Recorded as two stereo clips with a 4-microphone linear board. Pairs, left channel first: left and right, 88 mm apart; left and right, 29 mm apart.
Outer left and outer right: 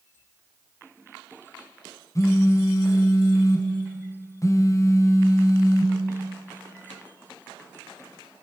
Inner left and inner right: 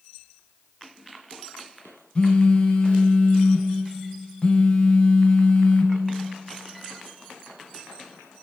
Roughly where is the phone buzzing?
Left.